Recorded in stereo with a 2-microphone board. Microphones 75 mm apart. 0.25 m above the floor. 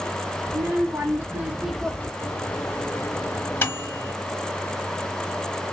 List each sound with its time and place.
0.5 s a child speaking: 45° right (ahead or behind), 1.7 m; by 2.1 s 30° left (ahead or behind), 0.7 m
2.2 s a microwave: 30° left (ahead or behind), 1.2 m